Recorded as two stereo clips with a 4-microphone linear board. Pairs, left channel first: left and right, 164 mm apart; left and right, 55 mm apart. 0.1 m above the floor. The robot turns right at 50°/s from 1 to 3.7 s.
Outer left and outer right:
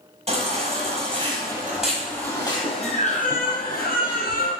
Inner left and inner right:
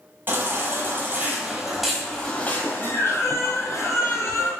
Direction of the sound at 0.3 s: 45° right.